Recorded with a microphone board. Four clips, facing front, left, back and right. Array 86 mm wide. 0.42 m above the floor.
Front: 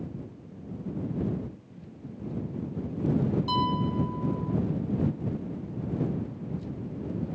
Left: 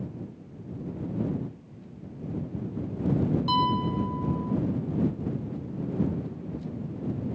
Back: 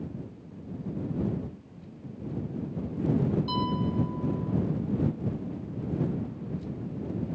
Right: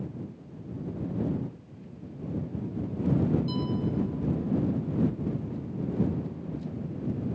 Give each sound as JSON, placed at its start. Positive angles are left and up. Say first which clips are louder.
{"t": 3.5, "sound": "a piano", "louder": "left 5 dB, front 2 dB", "azimuth_deg": 70}